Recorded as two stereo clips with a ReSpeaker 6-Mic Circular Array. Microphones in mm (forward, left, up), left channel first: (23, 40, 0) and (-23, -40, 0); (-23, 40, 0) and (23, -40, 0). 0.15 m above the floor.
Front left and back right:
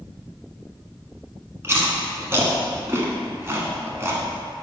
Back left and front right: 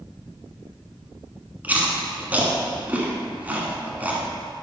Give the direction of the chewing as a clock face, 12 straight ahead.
4 o'clock.